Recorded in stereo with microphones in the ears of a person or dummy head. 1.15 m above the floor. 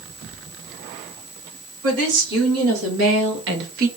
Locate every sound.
1.8 s a woman speaking: 85° right, 3.5 m; by 3.9 s 40° right (ahead or behind), 1.0 m